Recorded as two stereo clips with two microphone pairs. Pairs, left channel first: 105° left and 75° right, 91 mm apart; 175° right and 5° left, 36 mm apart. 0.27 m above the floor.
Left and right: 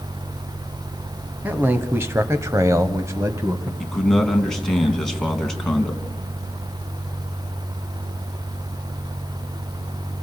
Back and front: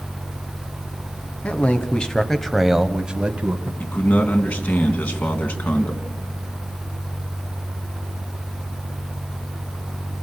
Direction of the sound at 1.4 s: 140° right.